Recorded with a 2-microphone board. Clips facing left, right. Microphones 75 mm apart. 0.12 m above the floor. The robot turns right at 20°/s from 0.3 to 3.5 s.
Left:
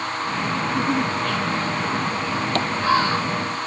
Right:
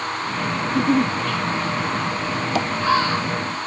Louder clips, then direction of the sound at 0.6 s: Right 5 dB; 20° right (ahead or behind).